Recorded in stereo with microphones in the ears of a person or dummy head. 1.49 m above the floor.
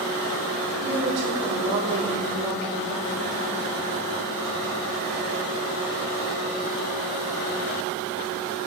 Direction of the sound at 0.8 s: 60° right (ahead or behind).